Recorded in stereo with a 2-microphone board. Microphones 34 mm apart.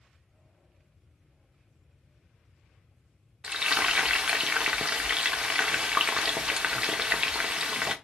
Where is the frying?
30° right (ahead or behind), 0.6 m.